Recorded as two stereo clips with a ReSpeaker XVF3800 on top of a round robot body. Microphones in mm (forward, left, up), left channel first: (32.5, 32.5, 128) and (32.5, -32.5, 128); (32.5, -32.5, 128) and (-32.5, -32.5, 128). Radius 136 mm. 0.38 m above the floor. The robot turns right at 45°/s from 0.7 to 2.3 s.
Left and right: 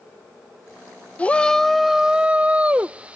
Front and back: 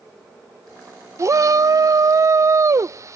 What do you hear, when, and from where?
1.2 s a shout: 155° left; by 3.2 s 155° right